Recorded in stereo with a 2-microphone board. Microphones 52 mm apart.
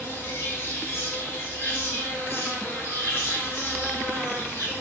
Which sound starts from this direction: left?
An insect, at 0.0 s.